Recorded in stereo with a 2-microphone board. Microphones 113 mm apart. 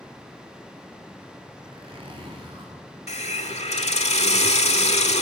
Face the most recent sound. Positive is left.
turn(degrees=75)  # may be behind; listen again after turning